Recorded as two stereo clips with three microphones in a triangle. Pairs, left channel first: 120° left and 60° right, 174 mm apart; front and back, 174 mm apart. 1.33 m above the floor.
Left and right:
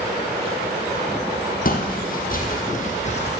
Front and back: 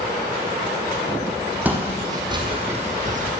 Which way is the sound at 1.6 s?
100° left.